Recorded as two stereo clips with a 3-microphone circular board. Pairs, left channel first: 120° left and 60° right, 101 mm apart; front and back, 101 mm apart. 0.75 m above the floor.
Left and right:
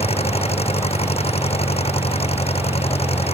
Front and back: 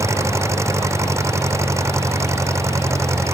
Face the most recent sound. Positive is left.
turn(degrees=120)